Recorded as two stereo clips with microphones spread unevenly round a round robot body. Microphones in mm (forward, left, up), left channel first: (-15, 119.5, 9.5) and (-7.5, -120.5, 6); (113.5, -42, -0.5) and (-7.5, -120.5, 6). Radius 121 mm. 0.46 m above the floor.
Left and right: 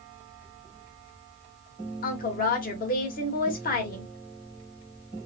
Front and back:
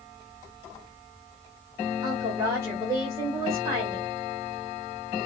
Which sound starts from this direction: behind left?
A woman speaking, at 2.0 s.